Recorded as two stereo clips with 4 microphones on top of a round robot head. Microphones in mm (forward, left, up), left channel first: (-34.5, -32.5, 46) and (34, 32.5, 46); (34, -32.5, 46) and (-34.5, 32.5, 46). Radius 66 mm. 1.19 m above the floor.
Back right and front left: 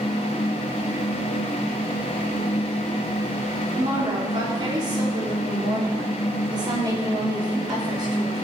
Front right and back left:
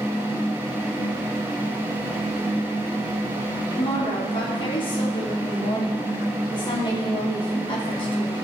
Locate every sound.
3.8 s a woman speaking: 5° right, 2.5 m